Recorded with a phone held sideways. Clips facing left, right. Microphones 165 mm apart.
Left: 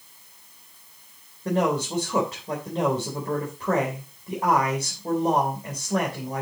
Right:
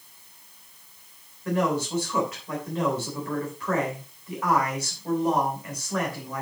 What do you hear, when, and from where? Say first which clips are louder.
1.4 s a man speaking: left 1 dB; 35° left (ahead or behind), 3.5 m